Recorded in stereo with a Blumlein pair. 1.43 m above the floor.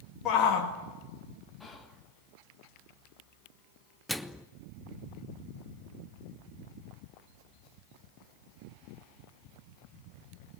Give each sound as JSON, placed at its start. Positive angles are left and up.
{"t": 0.2, "sound": "a shout", "azimuth_deg": 30, "distance_m": 1.9}
{"t": 1.6, "sound": "whispering", "azimuth_deg": 10, "distance_m": 1.6}
{"t": 4.1, "sound": "a microwave", "azimuth_deg": 0, "distance_m": 0.8}